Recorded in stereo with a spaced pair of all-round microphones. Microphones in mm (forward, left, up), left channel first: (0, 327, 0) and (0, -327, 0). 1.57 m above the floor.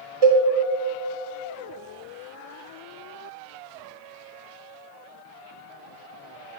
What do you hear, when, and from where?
0.2 s a cowbell: 50° right (ahead or behind), 0.8 m